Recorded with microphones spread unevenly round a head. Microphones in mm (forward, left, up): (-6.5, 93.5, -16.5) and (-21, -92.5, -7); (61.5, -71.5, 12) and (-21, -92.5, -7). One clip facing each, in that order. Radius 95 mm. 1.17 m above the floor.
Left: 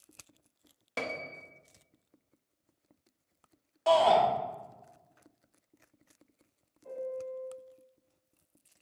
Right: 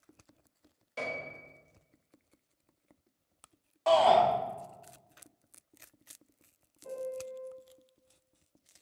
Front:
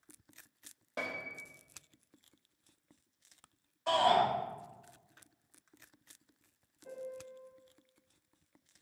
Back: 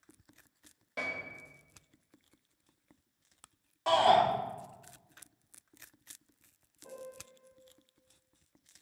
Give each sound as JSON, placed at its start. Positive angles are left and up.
{"t": 1.0, "sound": "a piano", "azimuth_deg": 75, "distance_m": 0.8}
{"t": 3.9, "sound": "a shout", "azimuth_deg": 165, "distance_m": 3.0}
{"t": 6.8, "sound": "a piano", "azimuth_deg": -130, "distance_m": 2.5}